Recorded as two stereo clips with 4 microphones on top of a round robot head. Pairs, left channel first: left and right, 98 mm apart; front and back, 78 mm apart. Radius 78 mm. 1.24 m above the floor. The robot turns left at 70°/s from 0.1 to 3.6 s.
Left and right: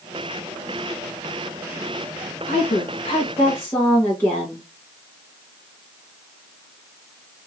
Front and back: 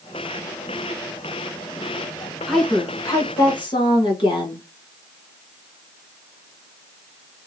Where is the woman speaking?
90° left, 1.0 m; by 4.6 s 15° left, 1.0 m.